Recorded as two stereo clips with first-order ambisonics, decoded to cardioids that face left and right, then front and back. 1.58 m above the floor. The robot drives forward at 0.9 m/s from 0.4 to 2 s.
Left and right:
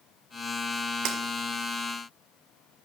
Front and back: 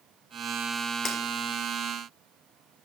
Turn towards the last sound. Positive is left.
turn(degrees=-100)